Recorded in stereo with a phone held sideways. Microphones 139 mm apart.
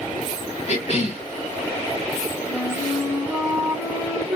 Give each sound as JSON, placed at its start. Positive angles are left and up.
{"t": 0.7, "sound": "a cough", "side_deg": 45, "distance_m": 1.7}
{"t": 2.5, "sound": "a flute", "side_deg": 15, "distance_m": 1.7}